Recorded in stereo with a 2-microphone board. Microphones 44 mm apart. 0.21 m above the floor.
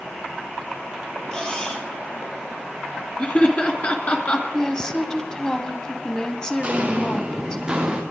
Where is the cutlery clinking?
20° left (ahead or behind), 3 m.